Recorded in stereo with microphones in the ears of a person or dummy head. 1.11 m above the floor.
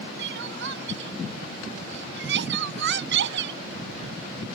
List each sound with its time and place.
0.2 s crying: 75° right (ahead or behind)